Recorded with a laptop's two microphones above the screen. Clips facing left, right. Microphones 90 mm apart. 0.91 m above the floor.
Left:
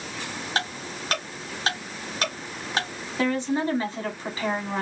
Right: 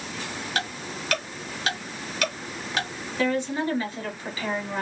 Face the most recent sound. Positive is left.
turn(degrees=30)  # may be behind; listen again after turning